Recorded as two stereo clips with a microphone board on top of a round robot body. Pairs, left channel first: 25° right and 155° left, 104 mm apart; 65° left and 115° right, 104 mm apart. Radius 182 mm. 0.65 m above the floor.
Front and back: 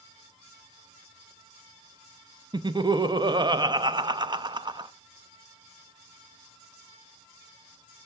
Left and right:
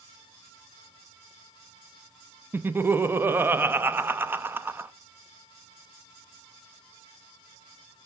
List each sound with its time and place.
2.5 s laughter: 175° right, 0.9 m